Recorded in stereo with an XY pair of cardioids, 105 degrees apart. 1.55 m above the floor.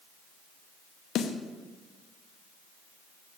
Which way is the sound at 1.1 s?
65° left.